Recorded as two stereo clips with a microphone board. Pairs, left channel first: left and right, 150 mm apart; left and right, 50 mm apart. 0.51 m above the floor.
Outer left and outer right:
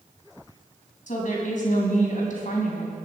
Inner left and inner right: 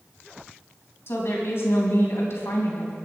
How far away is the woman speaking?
About 4 m.